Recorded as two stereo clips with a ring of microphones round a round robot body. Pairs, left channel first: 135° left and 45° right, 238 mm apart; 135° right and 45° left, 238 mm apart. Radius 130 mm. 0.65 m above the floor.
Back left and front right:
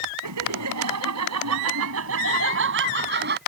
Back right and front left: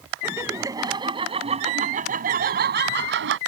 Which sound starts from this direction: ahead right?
Laughter, at 0.2 s.